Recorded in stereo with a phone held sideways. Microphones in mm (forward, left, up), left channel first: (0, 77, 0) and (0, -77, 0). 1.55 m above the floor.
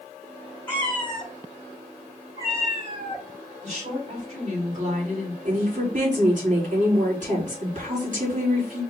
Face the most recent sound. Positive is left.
turn(degrees=-55)  # may be behind; listen again after turning